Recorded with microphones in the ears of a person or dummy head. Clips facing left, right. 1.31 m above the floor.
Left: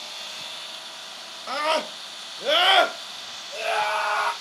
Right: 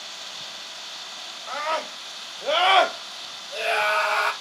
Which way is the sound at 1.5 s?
55° left (ahead or behind).